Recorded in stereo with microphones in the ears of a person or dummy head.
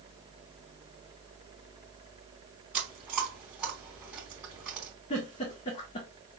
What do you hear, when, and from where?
2.7 s chewing: 10° right (ahead or behind), 3 m
5.1 s a giggle: 35° left (ahead or behind), 1.6 m